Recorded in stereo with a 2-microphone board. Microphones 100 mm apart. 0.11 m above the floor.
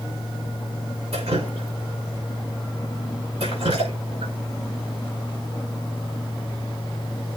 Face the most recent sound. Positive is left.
turn(degrees=-85)